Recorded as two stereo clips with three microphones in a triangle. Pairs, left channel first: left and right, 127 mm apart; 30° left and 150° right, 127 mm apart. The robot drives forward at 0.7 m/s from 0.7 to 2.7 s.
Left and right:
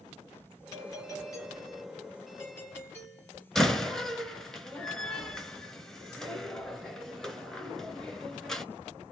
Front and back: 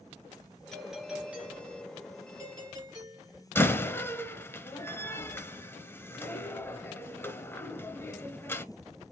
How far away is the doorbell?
About 1.6 m.